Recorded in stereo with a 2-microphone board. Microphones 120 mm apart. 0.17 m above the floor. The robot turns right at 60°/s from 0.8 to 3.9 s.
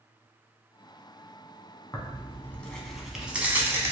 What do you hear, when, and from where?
1.9 s tearing paper: 25° left (ahead or behind), 0.5 m; by 3.9 s 25° right (ahead or behind), 0.5 m